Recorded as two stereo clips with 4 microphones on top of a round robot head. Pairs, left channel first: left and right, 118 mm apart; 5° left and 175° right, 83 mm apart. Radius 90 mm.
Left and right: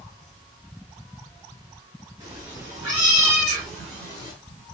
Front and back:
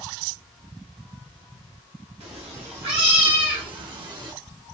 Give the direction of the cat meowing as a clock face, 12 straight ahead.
5 o'clock.